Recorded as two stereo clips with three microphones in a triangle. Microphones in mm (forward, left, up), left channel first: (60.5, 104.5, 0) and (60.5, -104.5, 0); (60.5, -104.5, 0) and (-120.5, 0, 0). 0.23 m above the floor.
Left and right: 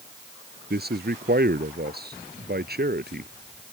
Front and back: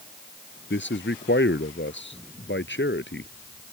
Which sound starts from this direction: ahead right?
A man speaking, at 0.7 s.